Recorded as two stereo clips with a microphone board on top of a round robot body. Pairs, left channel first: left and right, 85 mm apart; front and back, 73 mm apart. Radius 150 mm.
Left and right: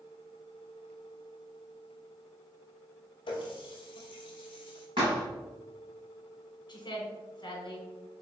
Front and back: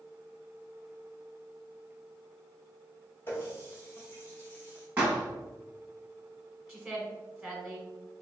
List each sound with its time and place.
3.3 s a running tap: 60° left, 0.5 m
5.0 s a thud: 115° right, 1.0 m
6.7 s a woman speaking: 100° left, 1.0 m